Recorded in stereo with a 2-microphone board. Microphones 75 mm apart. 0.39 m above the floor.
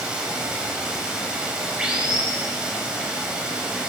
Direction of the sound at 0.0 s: 15° right (ahead or behind).